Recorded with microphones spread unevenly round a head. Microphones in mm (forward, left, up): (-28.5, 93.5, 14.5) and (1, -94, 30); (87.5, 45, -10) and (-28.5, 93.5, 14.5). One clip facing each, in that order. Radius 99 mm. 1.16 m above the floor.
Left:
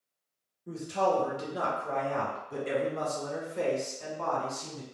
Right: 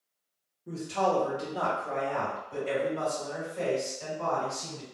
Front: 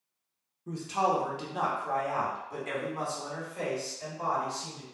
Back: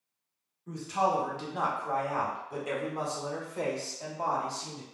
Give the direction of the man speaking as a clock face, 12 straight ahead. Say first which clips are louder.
Even, even; 11 o'clock.